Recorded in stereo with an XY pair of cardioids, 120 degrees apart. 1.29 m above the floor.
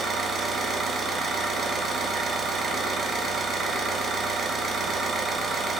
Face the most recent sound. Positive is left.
turn(degrees=-40)